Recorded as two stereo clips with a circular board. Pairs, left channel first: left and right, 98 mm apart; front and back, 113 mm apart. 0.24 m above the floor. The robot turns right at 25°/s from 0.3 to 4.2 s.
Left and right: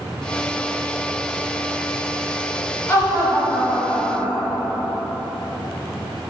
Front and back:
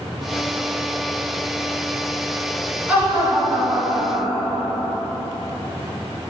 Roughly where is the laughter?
Behind left.